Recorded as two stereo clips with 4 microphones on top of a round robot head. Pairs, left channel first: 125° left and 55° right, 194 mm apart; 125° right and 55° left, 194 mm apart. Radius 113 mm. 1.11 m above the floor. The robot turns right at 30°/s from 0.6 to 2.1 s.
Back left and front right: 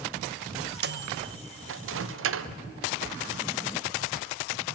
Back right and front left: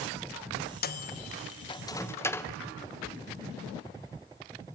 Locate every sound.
0.8 s a microwave: 85° right, 0.8 m; by 2.5 s 50° right, 0.8 m